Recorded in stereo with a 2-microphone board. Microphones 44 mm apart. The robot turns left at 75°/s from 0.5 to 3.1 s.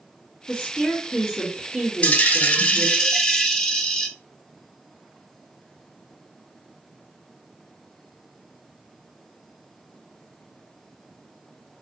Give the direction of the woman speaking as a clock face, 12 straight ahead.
10 o'clock.